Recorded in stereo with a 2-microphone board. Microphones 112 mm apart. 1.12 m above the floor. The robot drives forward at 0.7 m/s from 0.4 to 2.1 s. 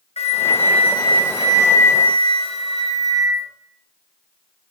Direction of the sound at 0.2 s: 70° left (ahead or behind).